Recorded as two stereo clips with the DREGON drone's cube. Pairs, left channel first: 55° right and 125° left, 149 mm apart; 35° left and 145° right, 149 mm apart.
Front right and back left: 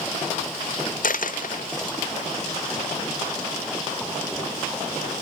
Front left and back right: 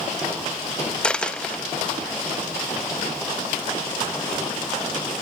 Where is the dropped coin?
50° right, 0.6 m.